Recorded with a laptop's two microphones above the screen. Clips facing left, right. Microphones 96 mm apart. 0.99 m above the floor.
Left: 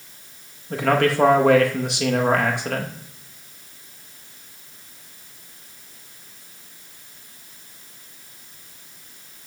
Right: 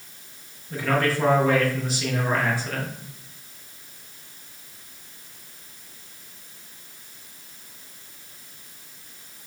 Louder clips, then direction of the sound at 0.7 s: Left 4 dB; 60° left (ahead or behind).